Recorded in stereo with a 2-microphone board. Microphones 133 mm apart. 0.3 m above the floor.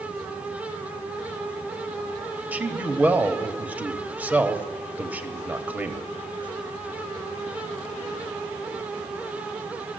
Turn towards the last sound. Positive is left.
turn(degrees=-10)  # may be behind; listen again after turning